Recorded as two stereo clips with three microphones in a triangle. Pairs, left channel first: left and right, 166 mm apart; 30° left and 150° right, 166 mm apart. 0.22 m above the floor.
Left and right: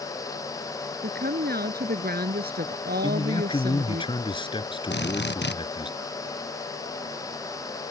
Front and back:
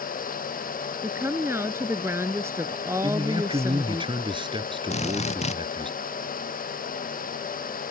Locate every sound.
1.0 s a woman speaking: 75° right
3.0 s a man speaking: 150° left
4.9 s a drill: 80° left